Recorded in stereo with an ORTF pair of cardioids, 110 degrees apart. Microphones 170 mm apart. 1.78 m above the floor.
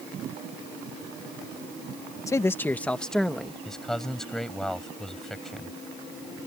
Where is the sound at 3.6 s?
5° left.